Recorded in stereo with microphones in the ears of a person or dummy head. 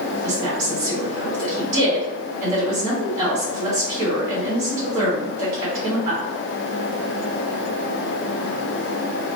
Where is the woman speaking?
70° right (ahead or behind), 1.4 m.